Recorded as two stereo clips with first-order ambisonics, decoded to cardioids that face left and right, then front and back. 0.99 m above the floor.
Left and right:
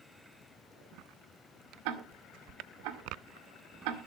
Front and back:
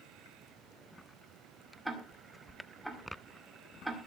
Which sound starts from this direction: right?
Ticking, at 1.9 s.